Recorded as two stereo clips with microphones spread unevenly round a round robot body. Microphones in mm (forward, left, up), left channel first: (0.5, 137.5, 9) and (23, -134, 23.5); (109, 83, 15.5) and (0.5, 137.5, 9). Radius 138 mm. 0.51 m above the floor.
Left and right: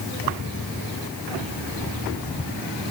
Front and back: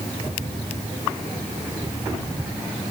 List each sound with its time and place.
Only background noise.